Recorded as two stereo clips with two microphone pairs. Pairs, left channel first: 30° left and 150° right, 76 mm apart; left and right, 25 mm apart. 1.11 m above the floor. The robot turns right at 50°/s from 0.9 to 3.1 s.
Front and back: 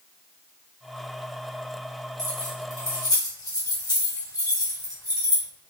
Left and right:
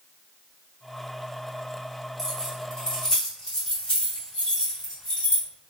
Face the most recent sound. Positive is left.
turn(degrees=45)